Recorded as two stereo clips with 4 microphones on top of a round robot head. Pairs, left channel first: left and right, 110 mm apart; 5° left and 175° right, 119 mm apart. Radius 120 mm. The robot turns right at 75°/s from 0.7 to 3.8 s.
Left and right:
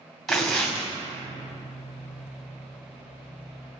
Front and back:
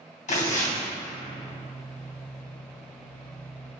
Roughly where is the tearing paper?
Ahead.